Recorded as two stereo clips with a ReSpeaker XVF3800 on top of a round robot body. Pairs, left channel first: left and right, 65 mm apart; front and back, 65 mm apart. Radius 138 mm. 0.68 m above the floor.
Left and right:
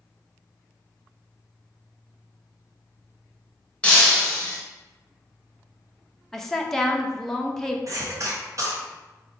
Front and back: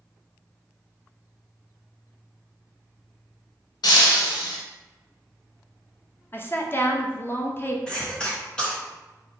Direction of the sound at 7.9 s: 75° right.